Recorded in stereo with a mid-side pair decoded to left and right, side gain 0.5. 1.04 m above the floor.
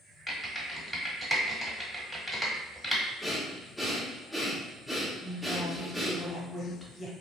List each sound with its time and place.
0.3 s typing on a keyboard: 5° left, 1.2 m
3.2 s breathing: 5° left, 0.9 m
5.2 s a woman speaking: 10° left, 1.2 m